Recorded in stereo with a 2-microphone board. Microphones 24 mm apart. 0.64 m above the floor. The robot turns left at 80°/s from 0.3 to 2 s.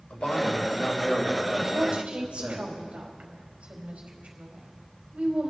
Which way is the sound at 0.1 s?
75° left.